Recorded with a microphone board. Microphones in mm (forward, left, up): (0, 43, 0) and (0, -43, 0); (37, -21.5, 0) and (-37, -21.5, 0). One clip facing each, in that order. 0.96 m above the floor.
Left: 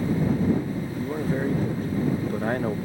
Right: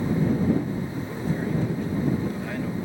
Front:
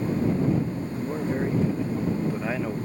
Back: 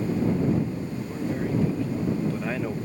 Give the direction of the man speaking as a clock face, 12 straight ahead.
10 o'clock.